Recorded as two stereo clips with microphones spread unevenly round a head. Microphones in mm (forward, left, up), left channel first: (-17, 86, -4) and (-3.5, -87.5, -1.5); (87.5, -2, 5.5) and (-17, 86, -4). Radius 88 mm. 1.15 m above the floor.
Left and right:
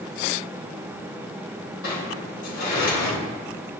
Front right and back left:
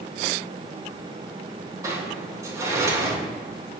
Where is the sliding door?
75° left, 4.5 m.